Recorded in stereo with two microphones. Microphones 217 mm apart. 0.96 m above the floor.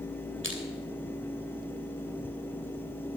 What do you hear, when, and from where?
0.4 s crushing: 65° right (ahead or behind), 2.5 m